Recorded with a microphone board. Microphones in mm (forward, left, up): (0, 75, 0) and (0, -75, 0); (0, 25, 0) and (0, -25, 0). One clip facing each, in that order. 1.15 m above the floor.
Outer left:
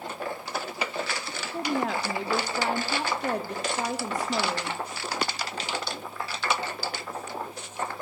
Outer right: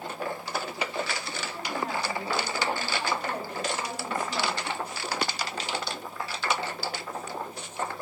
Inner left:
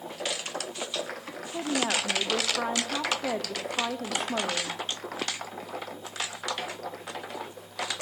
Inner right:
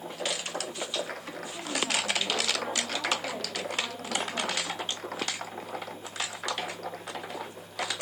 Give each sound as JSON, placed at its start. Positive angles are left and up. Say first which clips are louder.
{"t": 1.5, "sound": "a woman speaking", "louder": "outer left 5 dB, inner left 3 dB", "side_deg": 90, "distance_m": 1.1}